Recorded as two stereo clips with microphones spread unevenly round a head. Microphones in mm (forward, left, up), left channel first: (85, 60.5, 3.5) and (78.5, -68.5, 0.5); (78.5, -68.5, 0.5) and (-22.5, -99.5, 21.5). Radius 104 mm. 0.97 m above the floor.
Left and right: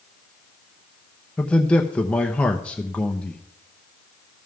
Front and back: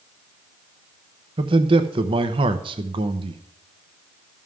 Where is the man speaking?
165° left, 0.8 m.